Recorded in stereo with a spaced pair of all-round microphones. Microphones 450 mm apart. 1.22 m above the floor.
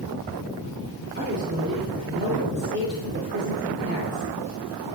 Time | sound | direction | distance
1.2 | a woman speaking | 25° right (ahead or behind) | 4 m